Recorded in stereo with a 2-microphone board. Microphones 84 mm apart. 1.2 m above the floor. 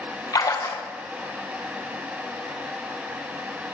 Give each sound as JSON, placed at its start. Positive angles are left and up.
{"t": 0.3, "sound": "a splash", "side_deg": 50, "distance_m": 1.1}